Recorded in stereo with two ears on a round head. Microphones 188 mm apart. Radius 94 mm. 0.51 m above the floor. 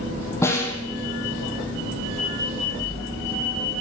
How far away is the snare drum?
About 3.5 m.